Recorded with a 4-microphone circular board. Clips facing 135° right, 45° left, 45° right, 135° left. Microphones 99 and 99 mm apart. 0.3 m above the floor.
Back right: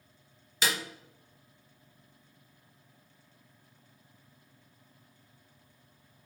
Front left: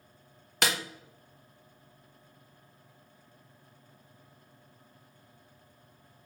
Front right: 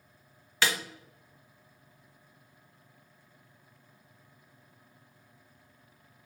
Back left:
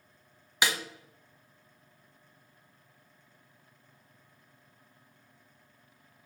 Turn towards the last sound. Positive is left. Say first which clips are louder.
# front left 2 dB, even
turn(degrees=60)